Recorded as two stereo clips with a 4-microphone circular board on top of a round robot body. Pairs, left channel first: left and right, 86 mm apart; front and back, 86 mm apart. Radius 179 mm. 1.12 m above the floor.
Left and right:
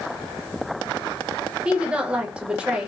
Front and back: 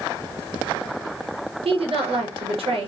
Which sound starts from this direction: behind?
A woman speaking, at 1.6 s.